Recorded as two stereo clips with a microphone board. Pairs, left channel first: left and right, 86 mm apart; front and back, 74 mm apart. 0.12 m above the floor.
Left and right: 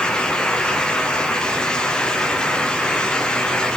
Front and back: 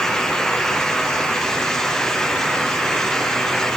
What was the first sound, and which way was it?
Only background noise.